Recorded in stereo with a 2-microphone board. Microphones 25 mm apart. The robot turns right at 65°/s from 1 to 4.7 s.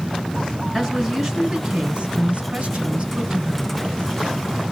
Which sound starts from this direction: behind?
A woman speaking, at 0.7 s.